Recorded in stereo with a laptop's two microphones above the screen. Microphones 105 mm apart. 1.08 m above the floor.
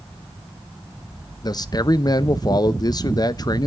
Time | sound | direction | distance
1.4 | a man speaking | 40° left (ahead or behind) | 0.6 m